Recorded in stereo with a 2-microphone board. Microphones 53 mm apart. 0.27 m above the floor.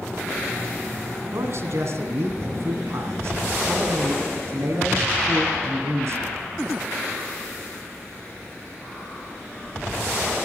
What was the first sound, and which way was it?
A man speaking, 60° right (ahead or behind).